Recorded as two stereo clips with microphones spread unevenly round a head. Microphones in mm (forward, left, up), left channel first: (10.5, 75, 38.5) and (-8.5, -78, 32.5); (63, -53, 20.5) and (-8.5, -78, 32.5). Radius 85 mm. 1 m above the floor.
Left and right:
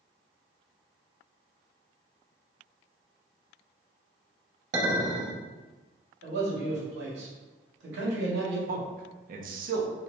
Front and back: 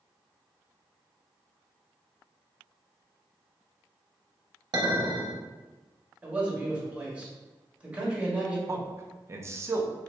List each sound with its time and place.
4.7 s a clink: 140° right, 1.0 m
6.2 s a man speaking: 85° right, 1.4 m
8.7 s a man speaking: 105° right, 0.6 m